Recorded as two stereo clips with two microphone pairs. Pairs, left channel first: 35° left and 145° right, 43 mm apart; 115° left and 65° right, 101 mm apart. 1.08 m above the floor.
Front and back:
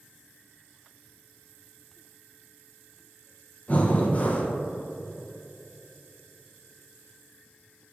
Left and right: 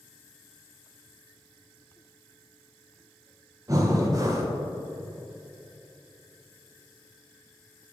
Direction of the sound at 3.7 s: 15° right.